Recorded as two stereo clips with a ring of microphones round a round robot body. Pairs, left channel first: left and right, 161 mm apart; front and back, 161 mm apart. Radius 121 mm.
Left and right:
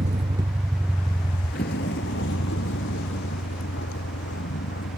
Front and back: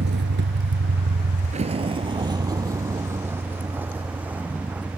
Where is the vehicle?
145° right; by 5.0 s 95° left.